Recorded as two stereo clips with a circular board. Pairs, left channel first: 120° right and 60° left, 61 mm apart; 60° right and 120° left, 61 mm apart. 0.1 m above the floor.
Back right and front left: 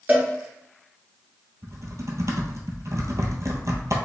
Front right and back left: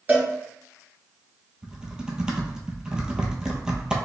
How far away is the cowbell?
About 1.6 m.